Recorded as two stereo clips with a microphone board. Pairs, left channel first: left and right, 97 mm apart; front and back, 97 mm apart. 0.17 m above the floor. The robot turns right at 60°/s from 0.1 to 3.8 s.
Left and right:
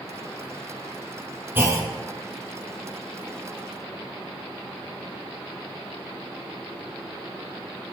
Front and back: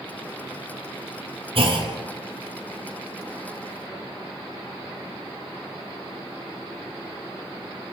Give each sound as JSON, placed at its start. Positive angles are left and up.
{"t": 1.6, "sound": "a clunk", "azimuth_deg": -160, "distance_m": 1.8}